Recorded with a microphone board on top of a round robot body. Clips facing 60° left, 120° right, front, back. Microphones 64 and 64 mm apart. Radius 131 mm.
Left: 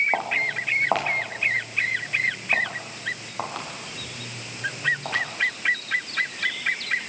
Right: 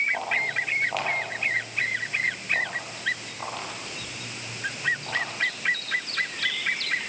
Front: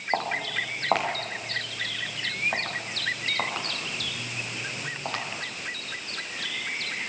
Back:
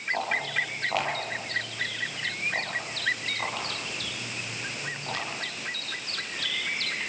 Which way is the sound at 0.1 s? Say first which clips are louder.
Left 2 dB, front 2 dB; 45° left.